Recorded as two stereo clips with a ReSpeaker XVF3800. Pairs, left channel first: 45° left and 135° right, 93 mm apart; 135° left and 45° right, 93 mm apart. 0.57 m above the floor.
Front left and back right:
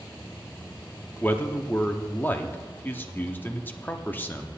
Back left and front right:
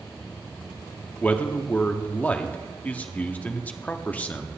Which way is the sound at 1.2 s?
85° left.